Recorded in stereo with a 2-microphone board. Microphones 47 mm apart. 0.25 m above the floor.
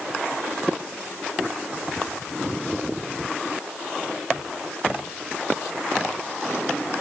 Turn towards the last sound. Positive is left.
No sound to turn to.